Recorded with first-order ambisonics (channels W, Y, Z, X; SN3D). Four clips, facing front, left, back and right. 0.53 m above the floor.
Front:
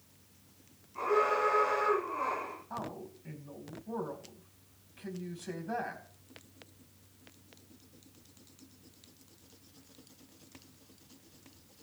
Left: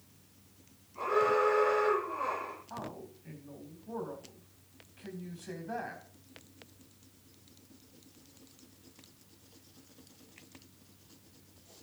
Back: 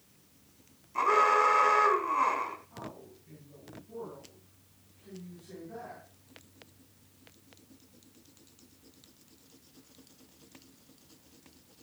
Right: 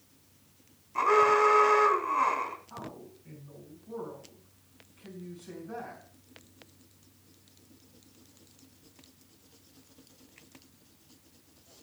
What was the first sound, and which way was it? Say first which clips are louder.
An alarm: right 6 dB, back 5 dB; 130° right.